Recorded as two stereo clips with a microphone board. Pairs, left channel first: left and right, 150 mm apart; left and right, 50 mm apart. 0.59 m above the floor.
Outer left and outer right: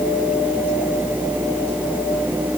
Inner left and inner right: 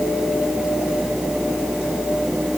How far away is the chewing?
I don't hear chewing.